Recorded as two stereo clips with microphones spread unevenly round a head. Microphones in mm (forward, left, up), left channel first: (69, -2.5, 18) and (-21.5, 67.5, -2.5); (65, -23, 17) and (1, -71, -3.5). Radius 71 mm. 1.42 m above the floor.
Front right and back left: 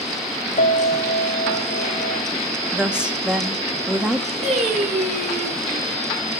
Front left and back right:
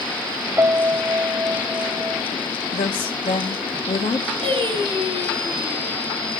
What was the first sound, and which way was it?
A piano, 75° right.